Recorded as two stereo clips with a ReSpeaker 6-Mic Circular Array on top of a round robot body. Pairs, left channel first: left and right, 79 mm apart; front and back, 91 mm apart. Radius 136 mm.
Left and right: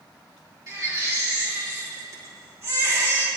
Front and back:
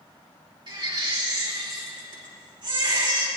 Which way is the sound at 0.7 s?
140° right.